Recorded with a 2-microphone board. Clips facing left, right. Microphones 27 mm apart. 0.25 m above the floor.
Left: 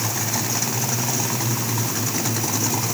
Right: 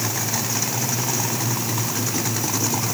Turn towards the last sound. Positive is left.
No sound to turn to.